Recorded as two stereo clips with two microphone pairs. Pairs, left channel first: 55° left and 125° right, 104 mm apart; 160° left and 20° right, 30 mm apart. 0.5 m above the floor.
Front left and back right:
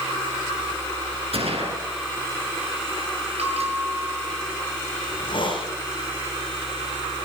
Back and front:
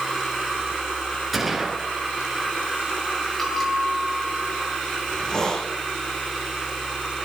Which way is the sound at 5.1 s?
95° left.